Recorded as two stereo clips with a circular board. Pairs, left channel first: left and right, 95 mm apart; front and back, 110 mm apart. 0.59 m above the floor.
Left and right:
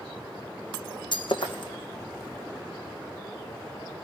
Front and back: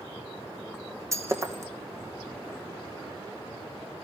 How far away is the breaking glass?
About 2 m.